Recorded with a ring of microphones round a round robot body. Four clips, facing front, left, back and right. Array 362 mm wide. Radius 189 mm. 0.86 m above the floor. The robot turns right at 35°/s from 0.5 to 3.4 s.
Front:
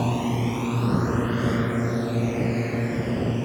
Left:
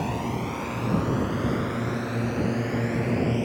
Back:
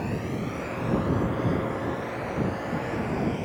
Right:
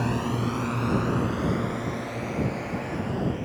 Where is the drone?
20° right; by 3.4 s 60° left.